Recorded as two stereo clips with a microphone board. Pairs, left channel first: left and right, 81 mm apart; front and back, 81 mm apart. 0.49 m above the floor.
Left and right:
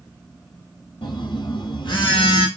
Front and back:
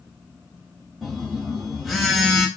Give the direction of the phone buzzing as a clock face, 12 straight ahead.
9 o'clock.